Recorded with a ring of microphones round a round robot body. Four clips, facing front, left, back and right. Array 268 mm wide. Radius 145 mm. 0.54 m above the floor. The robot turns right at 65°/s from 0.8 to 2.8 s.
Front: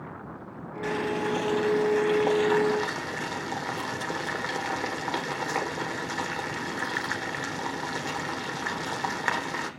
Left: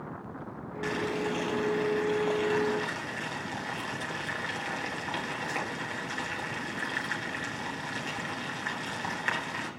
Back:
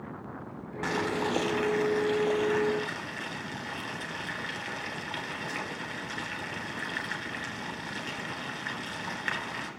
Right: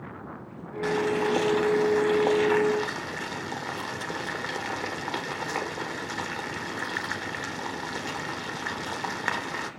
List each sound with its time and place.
0.8 s boiling: 160° right, 1.9 m; by 9.7 s 30° right, 1.9 m